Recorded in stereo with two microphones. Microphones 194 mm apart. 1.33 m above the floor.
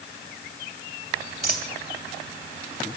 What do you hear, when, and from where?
1.4 s a dropped coin: 55° right (ahead or behind), 2.5 m